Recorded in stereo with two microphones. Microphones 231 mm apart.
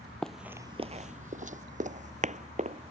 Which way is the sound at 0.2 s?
5° left (ahead or behind).